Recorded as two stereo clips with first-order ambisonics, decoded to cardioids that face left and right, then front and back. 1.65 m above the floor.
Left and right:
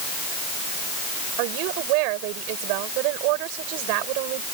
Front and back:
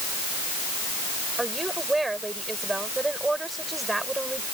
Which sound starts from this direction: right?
A woman speaking, at 1.4 s.